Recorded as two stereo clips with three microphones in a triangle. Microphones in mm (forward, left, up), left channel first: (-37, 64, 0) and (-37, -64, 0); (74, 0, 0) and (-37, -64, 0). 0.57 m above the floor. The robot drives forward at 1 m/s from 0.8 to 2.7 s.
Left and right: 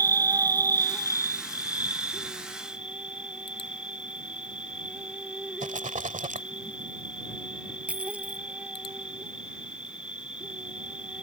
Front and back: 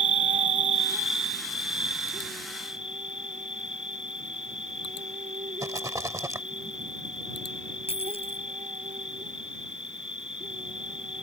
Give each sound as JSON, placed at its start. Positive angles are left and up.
{"t": 0.0, "sound": "an insect", "azimuth_deg": -145}
{"t": 5.6, "sound": "a rattle", "azimuth_deg": -85}
{"t": 7.9, "sound": "a dropped coin", "azimuth_deg": -10}